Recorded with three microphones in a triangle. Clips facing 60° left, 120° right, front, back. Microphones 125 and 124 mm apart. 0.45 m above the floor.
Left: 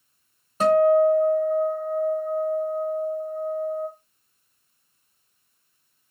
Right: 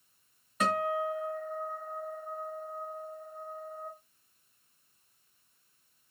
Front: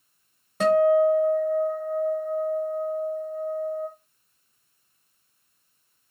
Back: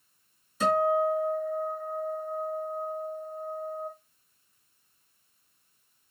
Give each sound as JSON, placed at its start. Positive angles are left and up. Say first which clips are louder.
{"t": 0.6, "sound": "a guitar", "louder": "left 14 dB, front 7 dB", "azimuth_deg": 0, "distance_m": 1.2}